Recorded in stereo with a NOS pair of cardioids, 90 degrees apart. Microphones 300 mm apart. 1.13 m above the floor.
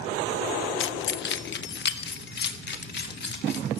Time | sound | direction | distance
0.8 | keys jangling | 40° left | 0.6 m